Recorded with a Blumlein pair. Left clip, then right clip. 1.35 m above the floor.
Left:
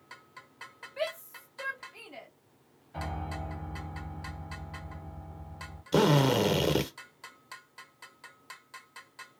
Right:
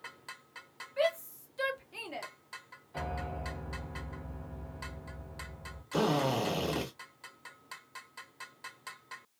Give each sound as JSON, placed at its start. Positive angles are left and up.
{"t": 1.0, "sound": "a shout", "azimuth_deg": 5, "distance_m": 1.0}
{"t": 2.9, "sound": "a piano", "azimuth_deg": 10, "distance_m": 1.2}
{"t": 5.9, "sound": "a drill", "azimuth_deg": 50, "distance_m": 0.7}